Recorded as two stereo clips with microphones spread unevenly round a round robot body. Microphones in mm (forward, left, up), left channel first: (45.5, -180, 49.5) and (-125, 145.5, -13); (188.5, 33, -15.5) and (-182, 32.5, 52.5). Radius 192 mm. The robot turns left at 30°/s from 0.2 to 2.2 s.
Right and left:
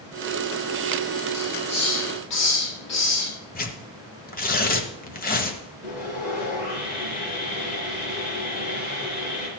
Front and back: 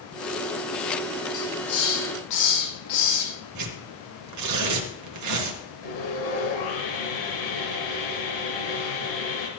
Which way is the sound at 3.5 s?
130° right.